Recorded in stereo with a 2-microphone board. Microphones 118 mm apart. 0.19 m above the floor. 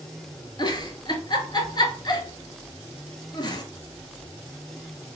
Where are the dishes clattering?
I don't hear dishes clattering.